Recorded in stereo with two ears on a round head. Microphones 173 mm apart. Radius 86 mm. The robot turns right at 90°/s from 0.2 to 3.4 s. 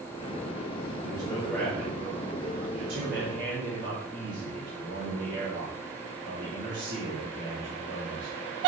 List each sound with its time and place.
1.0 s a man speaking: 120° left, 3.5 m; by 8.3 s 25° right, 3.5 m